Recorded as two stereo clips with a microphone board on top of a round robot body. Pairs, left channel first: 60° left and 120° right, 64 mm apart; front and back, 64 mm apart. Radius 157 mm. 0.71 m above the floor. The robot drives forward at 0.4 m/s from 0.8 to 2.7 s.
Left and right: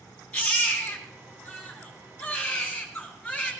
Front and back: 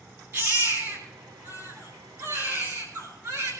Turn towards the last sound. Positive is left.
turn(degrees=135)